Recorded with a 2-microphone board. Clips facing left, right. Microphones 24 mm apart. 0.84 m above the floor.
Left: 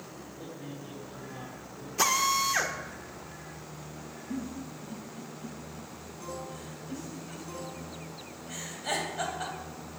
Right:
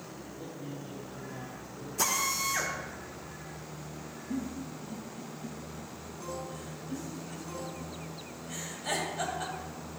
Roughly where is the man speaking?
Centre.